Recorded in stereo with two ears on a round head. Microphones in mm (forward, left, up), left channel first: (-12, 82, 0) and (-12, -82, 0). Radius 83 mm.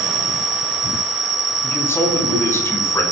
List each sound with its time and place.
0.0 s an insect: 25° right (ahead or behind), 3 m
1.6 s a man speaking: 15° left (ahead or behind), 6 m